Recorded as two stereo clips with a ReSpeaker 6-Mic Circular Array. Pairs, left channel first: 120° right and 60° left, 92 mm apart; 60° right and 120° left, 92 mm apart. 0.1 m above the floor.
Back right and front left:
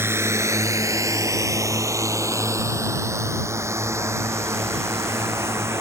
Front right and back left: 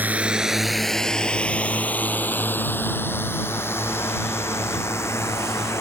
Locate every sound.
0.0 s a drone: 75° left; by 5.8 s straight ahead